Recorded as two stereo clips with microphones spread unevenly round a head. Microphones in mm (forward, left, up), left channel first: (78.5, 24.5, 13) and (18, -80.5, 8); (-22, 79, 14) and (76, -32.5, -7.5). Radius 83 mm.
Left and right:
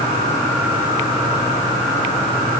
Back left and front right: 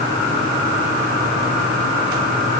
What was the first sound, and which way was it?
Only background noise.